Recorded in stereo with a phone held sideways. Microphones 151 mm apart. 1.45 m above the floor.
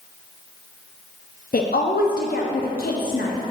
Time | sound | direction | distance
1.5 | a woman speaking | 80° left | 0.7 m